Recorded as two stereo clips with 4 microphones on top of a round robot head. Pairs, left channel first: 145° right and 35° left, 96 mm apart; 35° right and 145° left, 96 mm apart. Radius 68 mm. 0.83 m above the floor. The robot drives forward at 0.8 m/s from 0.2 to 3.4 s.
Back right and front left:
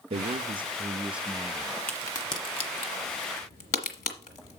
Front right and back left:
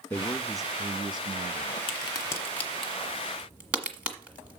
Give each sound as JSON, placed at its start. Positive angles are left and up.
{"t": 0.1, "sound": "a man speaking", "azimuth_deg": 35, "distance_m": 0.8}
{"t": 1.9, "sound": "a crack", "azimuth_deg": -70, "distance_m": 1.0}